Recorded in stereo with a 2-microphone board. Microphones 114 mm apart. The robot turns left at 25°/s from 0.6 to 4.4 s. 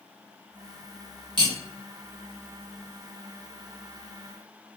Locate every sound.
1.4 s cutlery clinking: 40° right (ahead or behind), 1.0 m; by 1.6 s 35° right (ahead or behind), 1.0 m